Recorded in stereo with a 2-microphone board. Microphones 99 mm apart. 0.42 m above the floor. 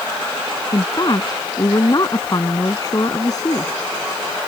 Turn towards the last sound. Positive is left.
turn(degrees=40)  # may be behind; listen again after turning